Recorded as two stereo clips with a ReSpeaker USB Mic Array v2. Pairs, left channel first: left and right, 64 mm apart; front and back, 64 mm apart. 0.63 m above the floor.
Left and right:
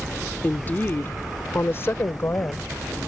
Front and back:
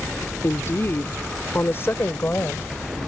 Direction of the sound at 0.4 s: 30° left.